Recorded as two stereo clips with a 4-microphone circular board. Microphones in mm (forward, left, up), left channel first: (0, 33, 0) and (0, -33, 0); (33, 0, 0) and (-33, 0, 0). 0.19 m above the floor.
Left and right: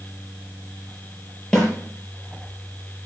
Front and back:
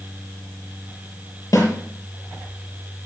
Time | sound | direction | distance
1.5 | a snare drum | 10° left | 5.5 m